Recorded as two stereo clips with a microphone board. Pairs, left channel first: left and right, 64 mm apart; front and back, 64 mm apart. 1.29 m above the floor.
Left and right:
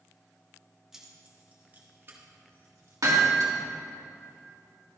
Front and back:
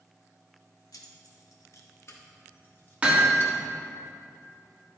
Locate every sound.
0.9 s keys jangling: 10° right, 1.2 m; by 3.5 s 60° right, 1.9 m
3.0 s hammering: 110° right, 1.8 m